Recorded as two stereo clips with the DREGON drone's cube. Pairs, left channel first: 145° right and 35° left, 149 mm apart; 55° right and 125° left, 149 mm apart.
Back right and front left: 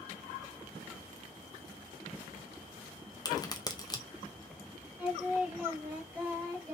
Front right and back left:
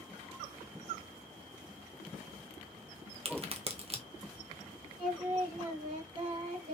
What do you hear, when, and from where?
3.2 s a crack: 160° left, 0.6 m
5.0 s singing: 115° left, 2 m